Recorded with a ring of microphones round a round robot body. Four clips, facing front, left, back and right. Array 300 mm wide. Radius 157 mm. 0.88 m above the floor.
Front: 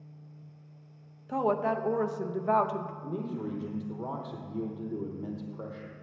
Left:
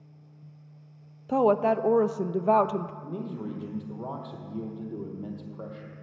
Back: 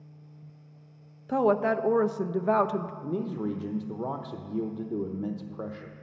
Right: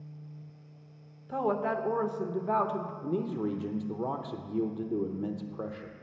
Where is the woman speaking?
120° left, 0.5 m.